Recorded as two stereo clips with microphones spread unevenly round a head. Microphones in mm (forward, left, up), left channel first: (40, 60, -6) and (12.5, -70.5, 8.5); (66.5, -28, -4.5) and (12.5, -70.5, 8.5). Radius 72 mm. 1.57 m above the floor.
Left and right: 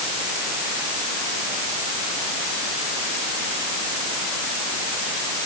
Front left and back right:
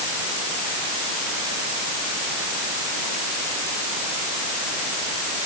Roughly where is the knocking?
No knocking in this recording.